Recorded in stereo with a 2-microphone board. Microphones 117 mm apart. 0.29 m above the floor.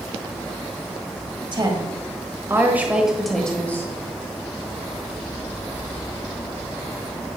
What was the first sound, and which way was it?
A woman speaking, 40° right (ahead or behind).